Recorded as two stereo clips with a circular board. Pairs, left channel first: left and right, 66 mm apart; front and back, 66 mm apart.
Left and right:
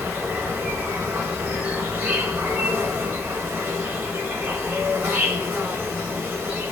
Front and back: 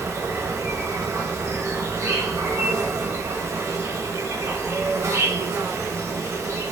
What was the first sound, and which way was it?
An insect, 150° right.